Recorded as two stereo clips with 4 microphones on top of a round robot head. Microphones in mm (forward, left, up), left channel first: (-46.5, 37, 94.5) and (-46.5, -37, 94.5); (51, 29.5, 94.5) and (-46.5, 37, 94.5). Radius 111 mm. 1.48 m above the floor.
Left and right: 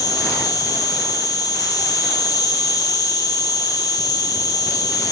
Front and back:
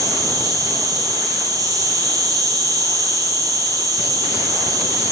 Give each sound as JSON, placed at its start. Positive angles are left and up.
{"t": 0.0, "sound": "an insect", "azimuth_deg": 125, "distance_m": 3.0}